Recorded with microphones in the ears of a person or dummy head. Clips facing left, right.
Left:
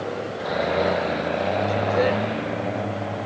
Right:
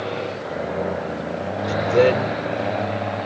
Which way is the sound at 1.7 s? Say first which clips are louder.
Right 8 dB; 45° right (ahead or behind).